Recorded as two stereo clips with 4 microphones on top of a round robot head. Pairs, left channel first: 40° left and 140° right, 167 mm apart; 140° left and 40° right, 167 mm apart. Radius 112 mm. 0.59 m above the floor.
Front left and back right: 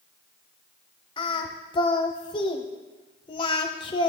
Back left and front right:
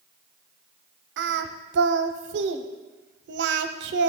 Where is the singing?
20° right, 0.6 m.